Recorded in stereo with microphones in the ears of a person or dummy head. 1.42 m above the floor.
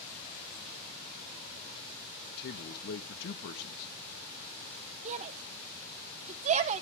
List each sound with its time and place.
2.4 s a man speaking: 55° left (ahead or behind), 1.3 m
5.0 s a shout: 40° right (ahead or behind), 0.6 m